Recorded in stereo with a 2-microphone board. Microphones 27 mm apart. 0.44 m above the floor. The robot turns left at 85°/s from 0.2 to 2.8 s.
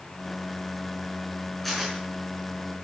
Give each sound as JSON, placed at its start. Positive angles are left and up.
{"t": 1.6, "sound": "tearing paper", "side_deg": 10, "distance_m": 5.0}